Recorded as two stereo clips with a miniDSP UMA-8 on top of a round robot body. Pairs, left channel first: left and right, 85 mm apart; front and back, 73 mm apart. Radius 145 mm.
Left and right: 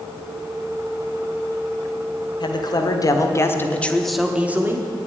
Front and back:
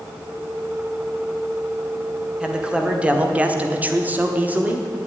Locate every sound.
2.4 s a man speaking: 105° left, 2.0 m; by 4.9 s 120° right, 1.4 m